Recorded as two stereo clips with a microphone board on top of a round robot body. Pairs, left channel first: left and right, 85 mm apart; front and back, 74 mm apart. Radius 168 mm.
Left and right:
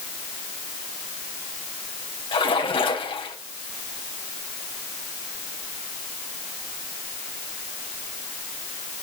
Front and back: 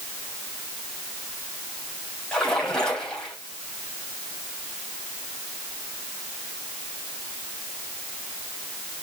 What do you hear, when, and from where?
2.3 s a splash: 80° left, 3.5 m